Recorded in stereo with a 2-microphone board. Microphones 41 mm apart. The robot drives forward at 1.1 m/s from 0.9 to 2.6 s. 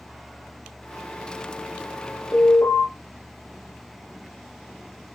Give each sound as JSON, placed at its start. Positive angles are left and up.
{"t": 2.3, "sound": "an alarm", "side_deg": 65, "distance_m": 8.5}